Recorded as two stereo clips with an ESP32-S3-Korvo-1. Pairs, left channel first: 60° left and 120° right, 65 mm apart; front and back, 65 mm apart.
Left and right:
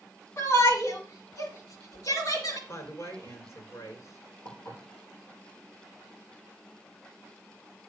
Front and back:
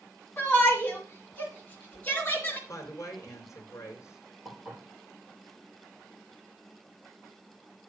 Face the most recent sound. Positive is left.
turn(degrees=105)